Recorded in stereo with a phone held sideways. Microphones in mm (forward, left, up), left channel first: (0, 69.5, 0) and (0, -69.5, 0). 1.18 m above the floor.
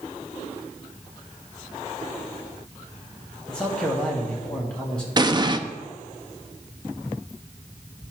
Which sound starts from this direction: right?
An explosion, at 5.2 s.